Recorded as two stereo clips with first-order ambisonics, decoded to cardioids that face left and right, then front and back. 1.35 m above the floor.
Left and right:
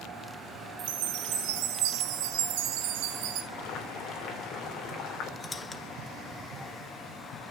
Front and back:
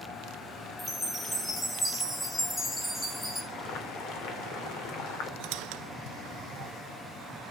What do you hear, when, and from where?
0.8 s a chime: 80° right, 1.3 m
3.5 s boiling: 40° left, 2.5 m
5.4 s a squeak: 170° left, 0.8 m